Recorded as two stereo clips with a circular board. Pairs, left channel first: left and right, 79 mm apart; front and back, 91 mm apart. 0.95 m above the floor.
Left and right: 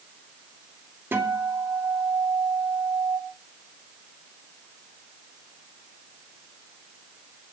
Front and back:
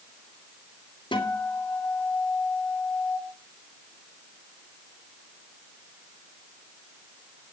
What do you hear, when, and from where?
1.1 s a guitar: 30° right, 3 m